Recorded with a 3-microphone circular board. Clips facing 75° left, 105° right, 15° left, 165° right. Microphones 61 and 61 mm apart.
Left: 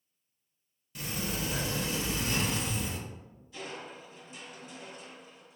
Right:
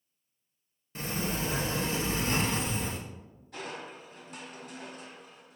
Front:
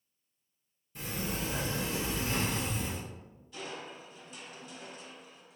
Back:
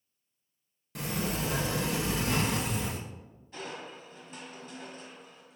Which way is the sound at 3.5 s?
120° right.